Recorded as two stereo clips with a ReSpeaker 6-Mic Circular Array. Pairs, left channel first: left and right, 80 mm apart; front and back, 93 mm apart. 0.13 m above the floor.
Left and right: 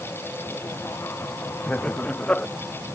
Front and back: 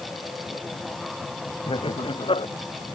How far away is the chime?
I don't hear a chime.